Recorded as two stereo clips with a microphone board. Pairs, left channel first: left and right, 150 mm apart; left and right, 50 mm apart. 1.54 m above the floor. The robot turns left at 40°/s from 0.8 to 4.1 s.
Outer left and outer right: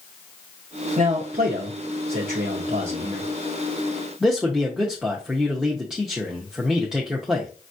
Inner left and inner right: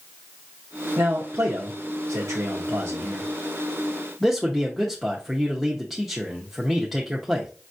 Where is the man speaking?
45° right (ahead or behind), 0.8 m; by 7.5 s 5° right (ahead or behind), 0.8 m.